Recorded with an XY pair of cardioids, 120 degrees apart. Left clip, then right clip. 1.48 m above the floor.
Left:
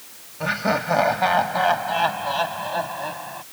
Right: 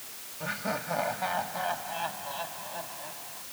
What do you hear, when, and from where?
0.4 s laughter: 55° left; by 3.4 s 70° left